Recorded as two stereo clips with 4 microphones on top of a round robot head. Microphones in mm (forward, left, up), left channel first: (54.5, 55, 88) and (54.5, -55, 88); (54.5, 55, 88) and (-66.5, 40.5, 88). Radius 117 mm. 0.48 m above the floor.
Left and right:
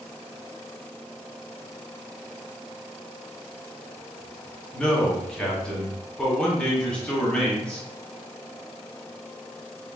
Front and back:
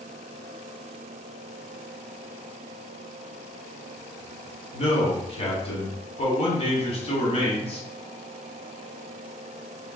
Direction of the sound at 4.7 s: 10° left.